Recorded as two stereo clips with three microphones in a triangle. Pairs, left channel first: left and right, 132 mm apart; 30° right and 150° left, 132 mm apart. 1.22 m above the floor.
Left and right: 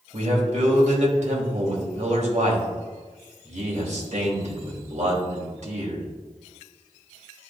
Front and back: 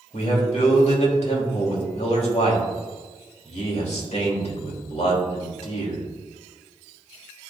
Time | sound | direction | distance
0.1 | a man speaking | 60° right | 2.5 m